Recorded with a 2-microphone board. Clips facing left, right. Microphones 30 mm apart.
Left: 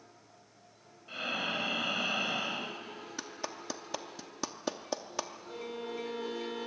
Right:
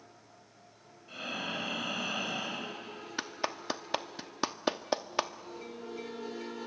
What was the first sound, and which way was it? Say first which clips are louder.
Breathing: left 3 dB; 25° left (ahead or behind).